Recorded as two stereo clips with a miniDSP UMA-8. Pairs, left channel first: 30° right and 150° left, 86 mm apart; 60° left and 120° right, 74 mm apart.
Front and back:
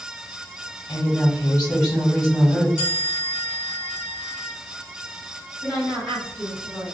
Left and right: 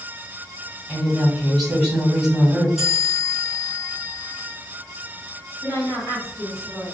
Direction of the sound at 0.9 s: 35° right.